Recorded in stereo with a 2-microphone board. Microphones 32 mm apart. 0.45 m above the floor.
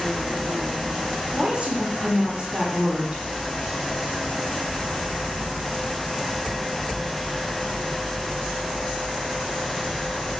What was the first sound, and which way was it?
A woman speaking, 35° right (ahead or behind).